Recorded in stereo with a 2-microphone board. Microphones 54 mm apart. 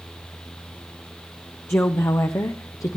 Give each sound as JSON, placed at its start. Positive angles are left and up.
{"t": 1.7, "sound": "a woman speaking", "side_deg": 45, "distance_m": 0.9}